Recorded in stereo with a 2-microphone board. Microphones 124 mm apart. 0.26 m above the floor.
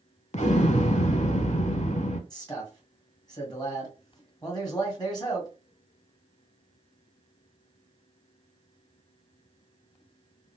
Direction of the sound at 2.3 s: 35° left (ahead or behind).